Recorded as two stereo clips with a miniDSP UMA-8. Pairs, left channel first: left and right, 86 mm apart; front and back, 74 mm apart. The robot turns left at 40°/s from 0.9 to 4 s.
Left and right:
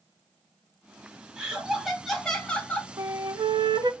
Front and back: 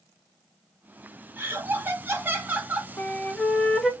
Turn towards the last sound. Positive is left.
turn(degrees=-95)